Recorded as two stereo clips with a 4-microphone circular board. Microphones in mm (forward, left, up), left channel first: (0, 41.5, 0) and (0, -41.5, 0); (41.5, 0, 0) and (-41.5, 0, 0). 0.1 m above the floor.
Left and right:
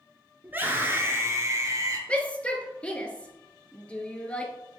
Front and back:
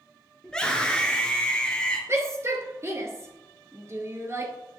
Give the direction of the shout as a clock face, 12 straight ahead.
7 o'clock.